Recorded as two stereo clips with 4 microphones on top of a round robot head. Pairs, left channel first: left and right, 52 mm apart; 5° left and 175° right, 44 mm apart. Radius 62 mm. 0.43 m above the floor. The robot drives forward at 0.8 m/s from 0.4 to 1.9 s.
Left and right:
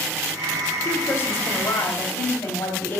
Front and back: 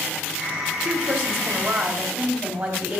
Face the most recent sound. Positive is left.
turn(degrees=150)